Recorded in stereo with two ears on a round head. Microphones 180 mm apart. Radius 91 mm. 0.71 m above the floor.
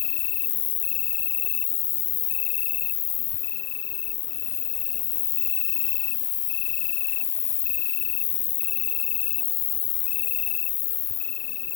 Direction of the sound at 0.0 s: 55° left (ahead or behind).